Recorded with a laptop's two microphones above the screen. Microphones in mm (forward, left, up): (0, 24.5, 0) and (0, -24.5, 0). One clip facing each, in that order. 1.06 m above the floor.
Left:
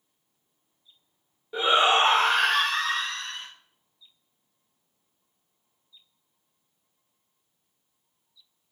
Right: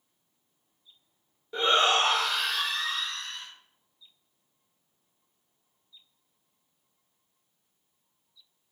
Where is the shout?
5° left (ahead or behind), 0.9 m; by 3.5 s 55° left (ahead or behind), 1.1 m.